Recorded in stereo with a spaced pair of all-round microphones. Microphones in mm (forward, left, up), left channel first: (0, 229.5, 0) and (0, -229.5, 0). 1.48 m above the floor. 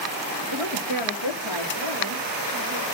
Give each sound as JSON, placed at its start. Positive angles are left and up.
{"t": 0.5, "sound": "a woman speaking", "side_deg": -70, "distance_m": 1.8}